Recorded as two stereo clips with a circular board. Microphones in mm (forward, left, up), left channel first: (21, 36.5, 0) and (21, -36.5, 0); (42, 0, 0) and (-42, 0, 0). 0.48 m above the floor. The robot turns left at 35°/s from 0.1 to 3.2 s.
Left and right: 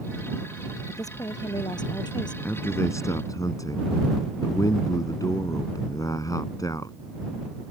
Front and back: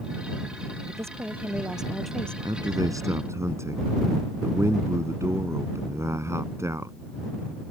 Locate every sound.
0.9 s a woman speaking: 130° left; by 2.4 s 80° left
2.5 s a man speaking: 155° left; by 7.0 s 125° left